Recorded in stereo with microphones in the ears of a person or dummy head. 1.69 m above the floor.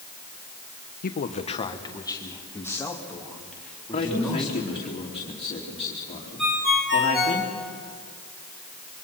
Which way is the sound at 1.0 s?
50° left (ahead or behind).